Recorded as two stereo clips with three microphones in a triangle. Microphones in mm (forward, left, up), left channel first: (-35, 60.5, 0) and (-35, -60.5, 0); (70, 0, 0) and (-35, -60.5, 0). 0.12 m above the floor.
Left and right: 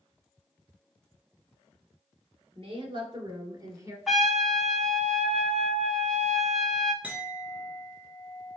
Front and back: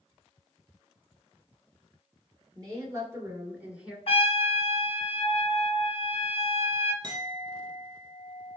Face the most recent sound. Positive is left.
turn(degrees=-160)